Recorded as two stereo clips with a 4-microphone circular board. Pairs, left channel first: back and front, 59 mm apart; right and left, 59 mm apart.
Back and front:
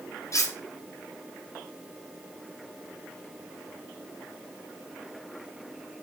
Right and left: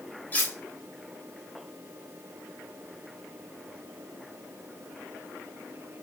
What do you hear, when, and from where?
0.3 s cutlery clinking: 150° right, 2.5 m